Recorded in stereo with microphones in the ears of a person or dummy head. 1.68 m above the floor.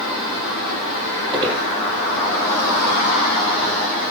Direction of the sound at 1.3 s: 20° right (ahead or behind).